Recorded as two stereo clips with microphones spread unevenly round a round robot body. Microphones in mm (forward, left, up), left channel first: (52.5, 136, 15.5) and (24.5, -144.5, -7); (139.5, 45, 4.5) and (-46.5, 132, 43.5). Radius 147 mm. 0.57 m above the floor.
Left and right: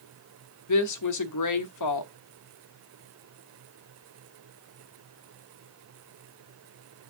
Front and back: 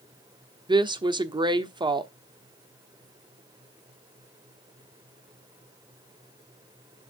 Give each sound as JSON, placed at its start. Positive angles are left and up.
{"t": 0.7, "sound": "a woman speaking", "azimuth_deg": 80, "distance_m": 1.1}